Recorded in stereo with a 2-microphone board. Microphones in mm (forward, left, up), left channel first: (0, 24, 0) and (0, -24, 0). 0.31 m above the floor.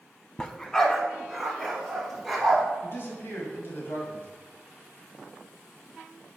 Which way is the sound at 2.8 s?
50° left (ahead or behind).